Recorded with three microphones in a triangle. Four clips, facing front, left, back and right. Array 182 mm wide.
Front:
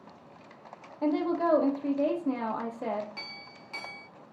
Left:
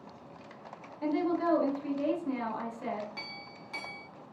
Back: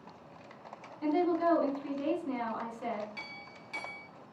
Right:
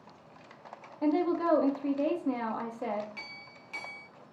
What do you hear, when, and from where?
1.0 s a woman speaking: 25° right, 0.7 m
3.2 s a clink: 45° left, 0.5 m